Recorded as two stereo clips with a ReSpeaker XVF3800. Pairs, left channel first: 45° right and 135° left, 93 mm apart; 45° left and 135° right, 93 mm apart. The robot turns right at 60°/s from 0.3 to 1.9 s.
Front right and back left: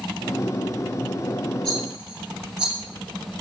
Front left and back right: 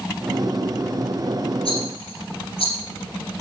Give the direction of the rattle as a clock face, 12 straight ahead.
11 o'clock.